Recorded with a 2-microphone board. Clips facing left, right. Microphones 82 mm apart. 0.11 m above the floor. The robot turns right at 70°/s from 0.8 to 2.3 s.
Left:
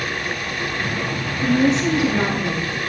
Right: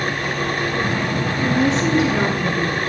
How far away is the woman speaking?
About 1.6 m.